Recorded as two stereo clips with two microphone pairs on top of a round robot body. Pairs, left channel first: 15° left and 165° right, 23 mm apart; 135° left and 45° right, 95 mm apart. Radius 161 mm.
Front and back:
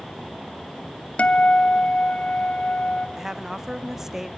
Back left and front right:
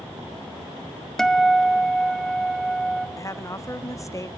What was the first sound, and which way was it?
A guitar, 45° left.